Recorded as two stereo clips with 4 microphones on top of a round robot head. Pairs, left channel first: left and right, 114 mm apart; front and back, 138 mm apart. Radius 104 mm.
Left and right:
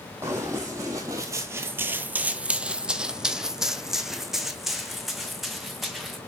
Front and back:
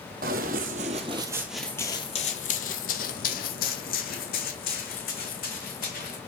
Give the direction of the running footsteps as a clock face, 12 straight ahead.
5 o'clock.